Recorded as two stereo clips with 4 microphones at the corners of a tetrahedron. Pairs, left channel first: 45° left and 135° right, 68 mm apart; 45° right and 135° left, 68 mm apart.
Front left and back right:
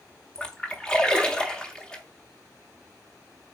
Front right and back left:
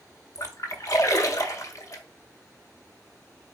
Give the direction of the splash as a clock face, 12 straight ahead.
1 o'clock.